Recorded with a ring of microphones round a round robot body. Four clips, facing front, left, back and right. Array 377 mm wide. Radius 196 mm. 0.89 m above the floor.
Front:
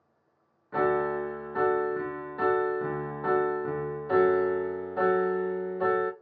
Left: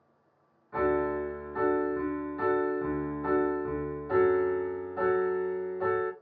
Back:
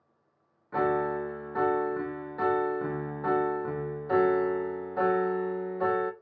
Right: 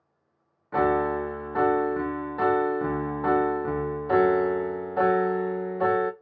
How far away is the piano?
About 0.5 m.